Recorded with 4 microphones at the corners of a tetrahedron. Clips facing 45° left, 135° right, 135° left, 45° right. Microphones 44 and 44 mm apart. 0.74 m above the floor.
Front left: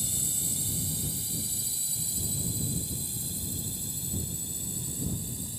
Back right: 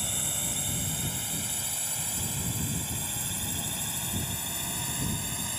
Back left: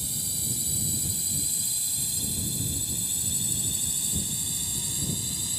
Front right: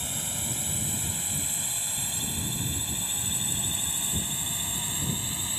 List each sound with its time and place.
0.0 s a drone: 95° right; by 5.6 s 105° right